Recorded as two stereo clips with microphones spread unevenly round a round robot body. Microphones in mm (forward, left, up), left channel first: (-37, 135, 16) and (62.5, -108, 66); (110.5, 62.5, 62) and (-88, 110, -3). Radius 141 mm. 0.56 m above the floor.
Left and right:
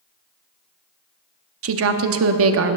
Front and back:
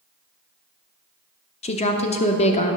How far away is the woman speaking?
About 0.8 m.